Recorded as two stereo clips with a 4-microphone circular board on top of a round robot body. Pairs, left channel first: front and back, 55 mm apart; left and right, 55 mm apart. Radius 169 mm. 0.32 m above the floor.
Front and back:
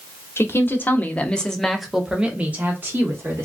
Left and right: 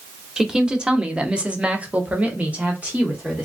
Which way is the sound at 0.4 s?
15° right.